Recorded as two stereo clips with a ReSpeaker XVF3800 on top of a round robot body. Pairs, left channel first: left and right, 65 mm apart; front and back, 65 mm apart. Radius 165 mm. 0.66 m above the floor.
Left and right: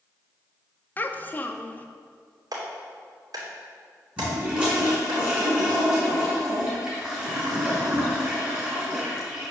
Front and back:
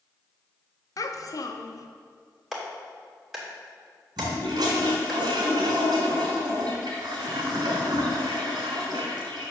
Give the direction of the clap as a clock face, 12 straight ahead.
3 o'clock.